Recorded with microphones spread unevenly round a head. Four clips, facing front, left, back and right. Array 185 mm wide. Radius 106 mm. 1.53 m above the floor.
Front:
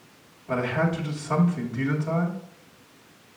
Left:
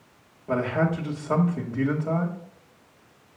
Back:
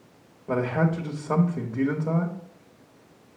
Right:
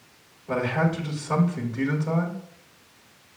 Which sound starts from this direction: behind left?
A man speaking, at 0.5 s.